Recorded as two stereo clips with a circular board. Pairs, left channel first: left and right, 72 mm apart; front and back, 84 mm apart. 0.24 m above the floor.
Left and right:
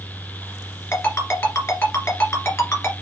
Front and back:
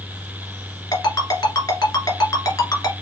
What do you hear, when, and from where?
0.9 s a ringtone: 45° left, 1.7 m